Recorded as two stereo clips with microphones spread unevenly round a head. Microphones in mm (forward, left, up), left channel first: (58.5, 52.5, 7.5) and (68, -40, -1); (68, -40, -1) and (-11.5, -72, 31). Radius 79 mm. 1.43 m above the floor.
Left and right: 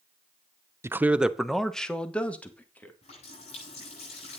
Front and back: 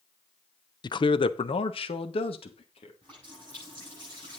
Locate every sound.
0.8 s a man speaking: 20° right, 0.7 m; by 2.9 s 25° left, 2.5 m
3.0 s a running tap: 105° left, 8.5 m